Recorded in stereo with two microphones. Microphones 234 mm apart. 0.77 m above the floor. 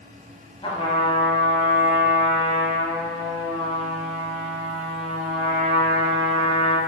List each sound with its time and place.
0.6 s a trumpet: 25° left (ahead or behind), 1.0 m